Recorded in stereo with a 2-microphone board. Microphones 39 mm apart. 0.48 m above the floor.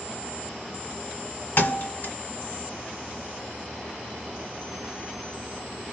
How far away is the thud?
About 1.0 m.